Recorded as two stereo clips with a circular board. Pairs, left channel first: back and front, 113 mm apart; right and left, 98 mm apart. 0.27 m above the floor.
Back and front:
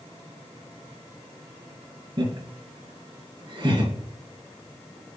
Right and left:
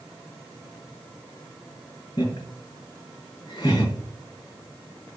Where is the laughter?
45° right, 4 m.